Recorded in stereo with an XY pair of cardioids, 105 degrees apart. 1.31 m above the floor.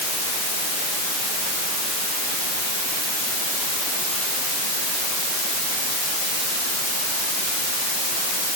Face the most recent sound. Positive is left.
No sound to turn to.